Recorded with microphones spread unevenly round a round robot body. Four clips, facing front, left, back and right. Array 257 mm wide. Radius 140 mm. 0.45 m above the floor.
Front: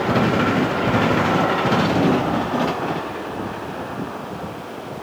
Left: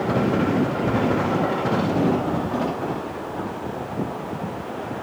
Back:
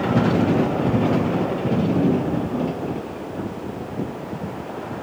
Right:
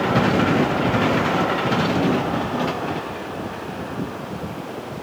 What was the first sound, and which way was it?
Only background noise.